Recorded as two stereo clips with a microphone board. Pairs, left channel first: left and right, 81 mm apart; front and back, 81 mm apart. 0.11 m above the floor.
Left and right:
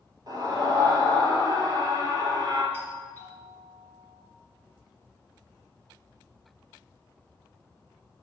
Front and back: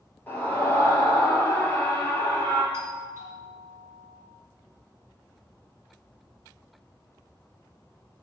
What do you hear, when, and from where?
0.3 s a scream: 65° right, 2.5 m
2.7 s a doorbell: 140° left, 3 m